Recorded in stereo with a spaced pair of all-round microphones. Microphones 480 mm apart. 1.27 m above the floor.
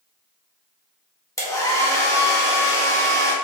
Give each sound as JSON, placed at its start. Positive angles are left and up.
{"t": 1.4, "sound": "a hair dryer", "side_deg": 5, "distance_m": 0.8}